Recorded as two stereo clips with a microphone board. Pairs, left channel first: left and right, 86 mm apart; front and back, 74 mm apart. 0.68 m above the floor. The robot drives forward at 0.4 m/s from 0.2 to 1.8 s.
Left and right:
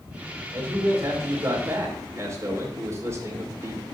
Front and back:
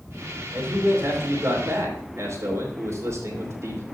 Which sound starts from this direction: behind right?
A man speaking, at 0.5 s.